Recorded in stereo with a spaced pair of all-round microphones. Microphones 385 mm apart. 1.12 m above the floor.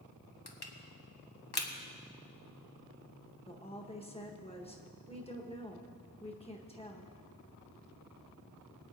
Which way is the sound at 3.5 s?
15° left (ahead or behind).